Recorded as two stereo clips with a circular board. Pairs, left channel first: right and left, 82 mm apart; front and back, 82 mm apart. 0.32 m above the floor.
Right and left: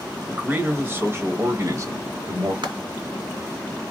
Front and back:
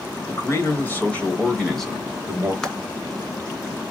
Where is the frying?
80° left, 2.5 m.